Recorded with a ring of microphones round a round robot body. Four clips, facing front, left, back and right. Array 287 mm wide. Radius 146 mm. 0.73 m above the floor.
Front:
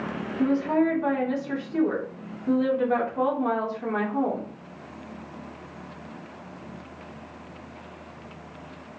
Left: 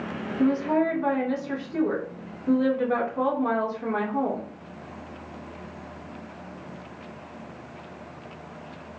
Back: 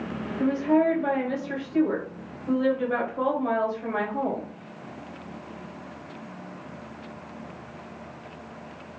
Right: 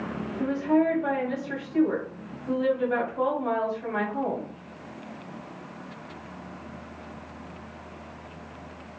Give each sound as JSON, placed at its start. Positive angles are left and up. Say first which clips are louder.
{"t": 0.4, "sound": "a woman speaking", "louder": "left 1 dB, back 1 dB", "azimuth_deg": 50, "distance_m": 2.0}